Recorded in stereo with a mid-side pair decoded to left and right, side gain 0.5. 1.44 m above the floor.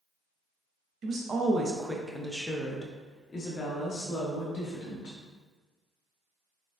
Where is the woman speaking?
45° right, 0.9 m; by 5.2 s 65° left, 1.8 m.